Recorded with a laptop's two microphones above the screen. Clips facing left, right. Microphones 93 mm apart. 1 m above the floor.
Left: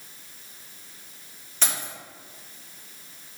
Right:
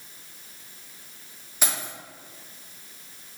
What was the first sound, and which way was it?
Keys jangling, 10° right (ahead or behind).